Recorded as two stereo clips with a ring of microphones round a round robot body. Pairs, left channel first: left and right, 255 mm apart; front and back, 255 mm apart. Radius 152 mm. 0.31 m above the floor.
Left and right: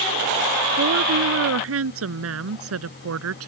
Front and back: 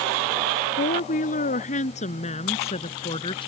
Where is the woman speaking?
60° right; by 3.5 s 70° right.